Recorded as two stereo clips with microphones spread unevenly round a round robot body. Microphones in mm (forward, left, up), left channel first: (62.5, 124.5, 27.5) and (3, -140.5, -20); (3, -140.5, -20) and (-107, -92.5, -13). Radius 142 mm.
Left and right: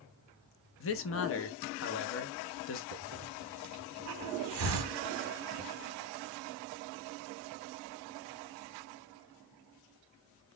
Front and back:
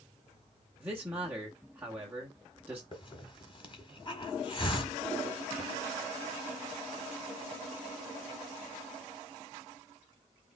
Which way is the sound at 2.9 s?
75° right.